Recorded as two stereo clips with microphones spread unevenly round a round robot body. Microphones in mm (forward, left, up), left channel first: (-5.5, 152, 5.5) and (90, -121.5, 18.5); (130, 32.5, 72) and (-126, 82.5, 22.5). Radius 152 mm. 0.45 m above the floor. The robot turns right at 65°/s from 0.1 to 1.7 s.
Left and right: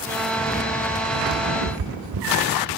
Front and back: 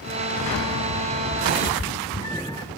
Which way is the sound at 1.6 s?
95° right.